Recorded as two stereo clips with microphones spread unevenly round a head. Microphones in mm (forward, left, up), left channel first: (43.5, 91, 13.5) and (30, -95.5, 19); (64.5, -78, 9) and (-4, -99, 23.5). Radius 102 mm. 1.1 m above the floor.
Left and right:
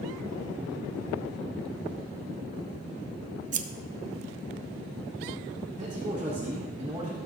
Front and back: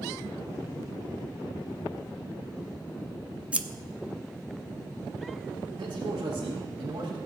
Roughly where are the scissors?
Right.